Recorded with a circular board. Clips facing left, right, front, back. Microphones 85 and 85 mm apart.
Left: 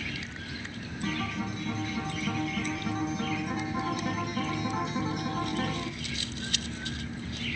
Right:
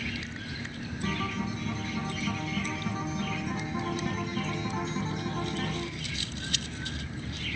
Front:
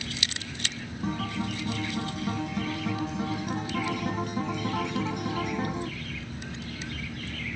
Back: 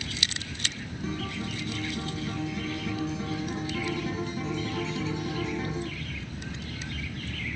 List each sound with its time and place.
1.0 s a guitar: 5° left, 2 m